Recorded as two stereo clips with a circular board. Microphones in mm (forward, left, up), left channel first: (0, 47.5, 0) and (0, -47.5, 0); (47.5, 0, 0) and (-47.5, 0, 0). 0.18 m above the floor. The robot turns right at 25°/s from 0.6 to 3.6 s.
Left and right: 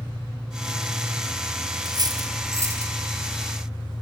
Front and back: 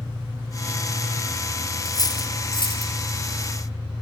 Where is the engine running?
65° right, 8.5 m; by 4.0 s 10° left, 8.5 m.